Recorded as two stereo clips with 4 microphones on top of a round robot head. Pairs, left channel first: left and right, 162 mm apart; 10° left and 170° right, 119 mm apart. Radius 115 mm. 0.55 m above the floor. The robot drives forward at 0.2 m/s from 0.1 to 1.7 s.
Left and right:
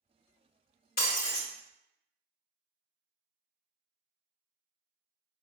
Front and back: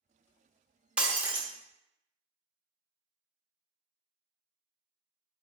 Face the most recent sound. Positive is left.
turn(degrees=115)